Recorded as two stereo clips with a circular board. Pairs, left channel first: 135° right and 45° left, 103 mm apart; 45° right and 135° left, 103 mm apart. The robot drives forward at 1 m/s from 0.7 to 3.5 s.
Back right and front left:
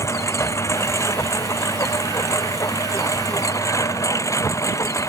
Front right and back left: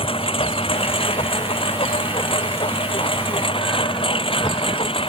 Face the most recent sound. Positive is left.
turn(degrees=-75)